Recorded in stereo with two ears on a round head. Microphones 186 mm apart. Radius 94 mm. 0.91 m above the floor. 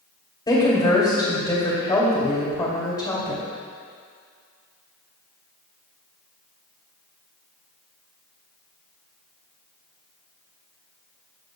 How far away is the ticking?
No ticking in this recording.